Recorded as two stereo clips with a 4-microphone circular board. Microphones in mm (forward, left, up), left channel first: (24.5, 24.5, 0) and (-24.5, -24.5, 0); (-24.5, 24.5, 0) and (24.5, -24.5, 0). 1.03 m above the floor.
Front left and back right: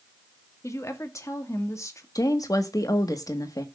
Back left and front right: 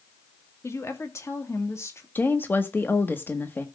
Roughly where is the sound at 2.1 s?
Left.